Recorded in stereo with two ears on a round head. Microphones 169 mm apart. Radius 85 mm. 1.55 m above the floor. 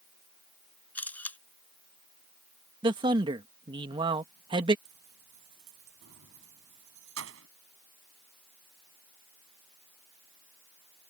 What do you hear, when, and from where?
0.9 s a camera shutter: 10° left (ahead or behind)
2.8 s a man speaking: 25° right (ahead or behind)
4.8 s keys jangling: 80° right